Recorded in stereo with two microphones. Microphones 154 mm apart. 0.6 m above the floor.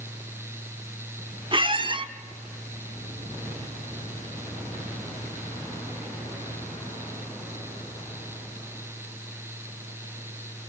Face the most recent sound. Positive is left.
turn(degrees=-35)  # may be behind; listen again after turning